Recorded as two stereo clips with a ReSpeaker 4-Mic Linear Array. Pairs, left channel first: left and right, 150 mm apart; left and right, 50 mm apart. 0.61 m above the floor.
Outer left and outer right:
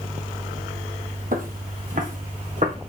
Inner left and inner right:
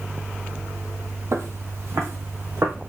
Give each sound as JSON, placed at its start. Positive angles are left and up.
{"t": 1.3, "sound": "footsteps", "side_deg": -65, "distance_m": 1.4}